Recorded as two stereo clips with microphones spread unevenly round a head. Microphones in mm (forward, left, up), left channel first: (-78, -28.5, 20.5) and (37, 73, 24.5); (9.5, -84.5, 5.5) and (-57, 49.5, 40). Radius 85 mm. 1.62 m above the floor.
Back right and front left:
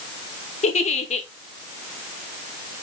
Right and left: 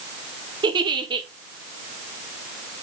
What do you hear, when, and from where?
0.6 s a giggle: 175° left, 0.9 m